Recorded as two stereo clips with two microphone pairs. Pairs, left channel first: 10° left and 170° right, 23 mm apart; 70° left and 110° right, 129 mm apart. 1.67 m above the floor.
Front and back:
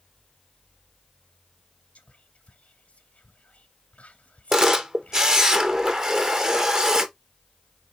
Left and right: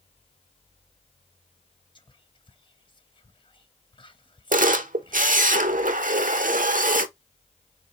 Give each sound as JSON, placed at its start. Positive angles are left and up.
{"t": 1.9, "sound": "whispering", "azimuth_deg": 20, "distance_m": 0.6}
{"t": 4.5, "sound": "a camera shutter", "azimuth_deg": -110, "distance_m": 0.6}